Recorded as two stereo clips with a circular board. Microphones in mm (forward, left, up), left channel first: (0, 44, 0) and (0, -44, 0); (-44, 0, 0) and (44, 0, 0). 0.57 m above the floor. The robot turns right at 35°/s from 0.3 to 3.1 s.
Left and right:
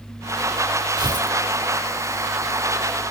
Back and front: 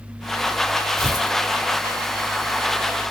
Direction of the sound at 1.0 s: 90° right.